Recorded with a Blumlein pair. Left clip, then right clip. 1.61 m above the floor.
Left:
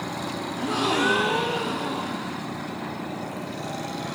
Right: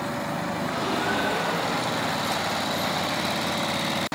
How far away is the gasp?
About 0.8 m.